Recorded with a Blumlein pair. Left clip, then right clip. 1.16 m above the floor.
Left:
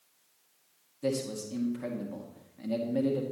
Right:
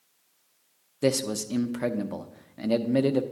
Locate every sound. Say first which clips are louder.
1.0 s a man speaking: right 6 dB; 40° right, 0.9 m